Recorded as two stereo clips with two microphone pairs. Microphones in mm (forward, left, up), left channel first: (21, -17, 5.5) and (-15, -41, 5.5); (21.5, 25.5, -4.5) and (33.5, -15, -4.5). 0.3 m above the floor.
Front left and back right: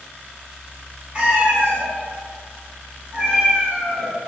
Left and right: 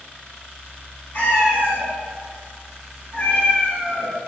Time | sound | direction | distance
1.1 | a cat meowing | 155° left | 1.9 m